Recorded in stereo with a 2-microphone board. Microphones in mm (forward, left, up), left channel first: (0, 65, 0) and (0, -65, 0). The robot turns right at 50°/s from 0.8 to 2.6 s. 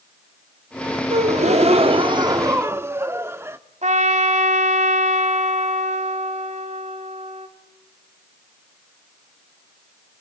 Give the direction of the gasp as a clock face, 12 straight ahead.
3 o'clock.